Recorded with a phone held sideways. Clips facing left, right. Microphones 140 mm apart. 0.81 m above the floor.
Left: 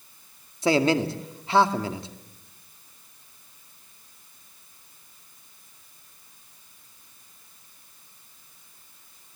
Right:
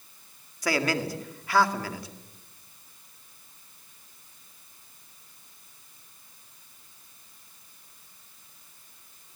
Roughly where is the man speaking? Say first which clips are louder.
Left 6 dB; left.